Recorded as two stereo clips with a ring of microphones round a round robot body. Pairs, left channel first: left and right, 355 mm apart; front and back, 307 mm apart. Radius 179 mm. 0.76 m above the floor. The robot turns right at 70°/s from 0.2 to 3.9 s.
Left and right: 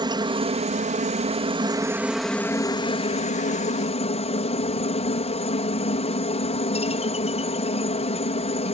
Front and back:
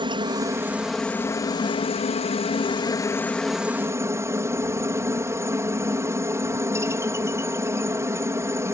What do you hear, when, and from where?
0.0 s a helicopter: 140° right; by 8.8 s 120° left